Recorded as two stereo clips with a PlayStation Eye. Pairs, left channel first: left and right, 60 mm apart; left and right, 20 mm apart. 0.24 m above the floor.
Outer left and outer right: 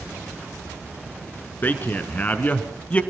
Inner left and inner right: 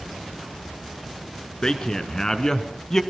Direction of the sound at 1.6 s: 30° left (ahead or behind).